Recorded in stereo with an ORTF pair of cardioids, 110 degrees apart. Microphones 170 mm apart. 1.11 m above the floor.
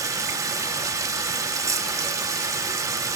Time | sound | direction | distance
0.0 | running water | 20° right | 0.9 m